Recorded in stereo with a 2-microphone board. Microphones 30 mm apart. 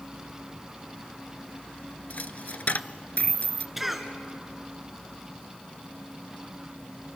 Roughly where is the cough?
Centre.